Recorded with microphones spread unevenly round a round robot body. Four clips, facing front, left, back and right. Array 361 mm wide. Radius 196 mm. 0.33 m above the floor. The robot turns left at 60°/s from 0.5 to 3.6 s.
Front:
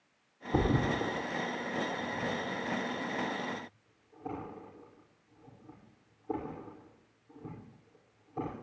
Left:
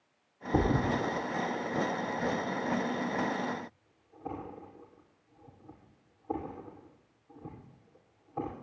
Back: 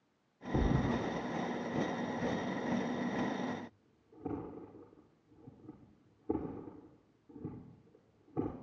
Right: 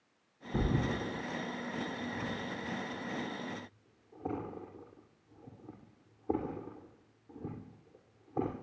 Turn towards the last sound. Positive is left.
turn(degrees=-135)